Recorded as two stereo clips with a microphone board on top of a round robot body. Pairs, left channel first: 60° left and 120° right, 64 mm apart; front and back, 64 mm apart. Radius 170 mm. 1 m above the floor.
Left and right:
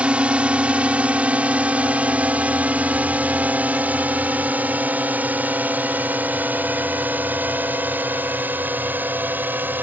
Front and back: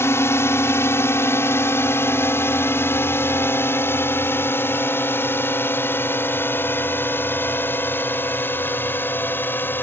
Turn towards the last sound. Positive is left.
turn(degrees=-60)